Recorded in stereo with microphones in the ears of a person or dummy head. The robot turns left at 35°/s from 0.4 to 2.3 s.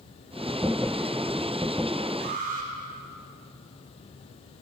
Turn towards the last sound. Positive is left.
turn(degrees=-40)  # may be behind; listen again after turning